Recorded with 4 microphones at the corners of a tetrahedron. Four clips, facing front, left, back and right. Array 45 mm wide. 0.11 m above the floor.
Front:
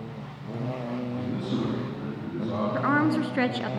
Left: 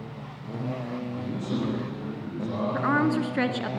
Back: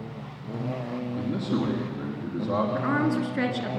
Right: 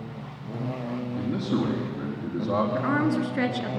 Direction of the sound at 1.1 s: 125° right.